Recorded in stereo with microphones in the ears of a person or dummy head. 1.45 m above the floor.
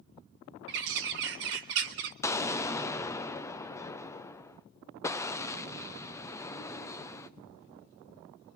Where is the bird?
60° right (ahead or behind), 0.9 m.